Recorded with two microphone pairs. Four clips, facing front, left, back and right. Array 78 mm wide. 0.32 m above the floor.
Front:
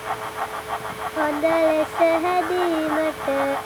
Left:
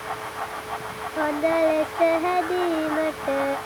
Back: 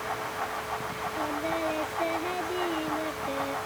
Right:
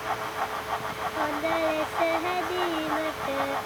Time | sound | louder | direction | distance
1.2 | singing | left 6 dB, front 13 dB | 25° left | ?